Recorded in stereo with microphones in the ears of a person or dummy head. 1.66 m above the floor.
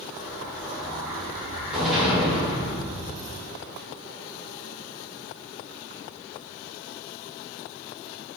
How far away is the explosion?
About 2 m.